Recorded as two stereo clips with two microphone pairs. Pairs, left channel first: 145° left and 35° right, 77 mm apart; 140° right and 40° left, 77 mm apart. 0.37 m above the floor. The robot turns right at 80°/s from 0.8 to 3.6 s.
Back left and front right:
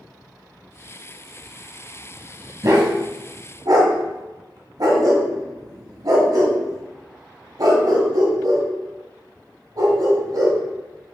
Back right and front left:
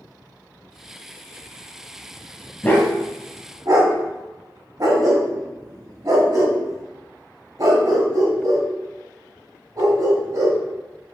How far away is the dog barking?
About 1.1 m.